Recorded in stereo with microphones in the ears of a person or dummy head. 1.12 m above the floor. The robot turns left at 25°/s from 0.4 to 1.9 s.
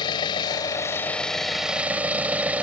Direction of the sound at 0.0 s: 25° left.